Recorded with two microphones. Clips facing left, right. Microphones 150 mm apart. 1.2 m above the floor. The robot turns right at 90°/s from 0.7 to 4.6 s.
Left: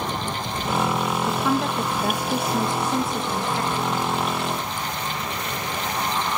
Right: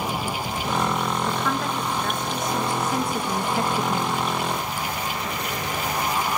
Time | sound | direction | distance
1.3 | a woman speaking | 15° left | 0.5 m